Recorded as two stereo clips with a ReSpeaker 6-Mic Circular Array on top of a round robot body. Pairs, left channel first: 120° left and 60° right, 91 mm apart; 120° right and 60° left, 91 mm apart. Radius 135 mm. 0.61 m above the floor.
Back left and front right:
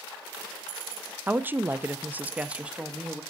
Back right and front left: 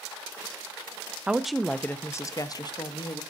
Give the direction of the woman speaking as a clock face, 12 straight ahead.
12 o'clock.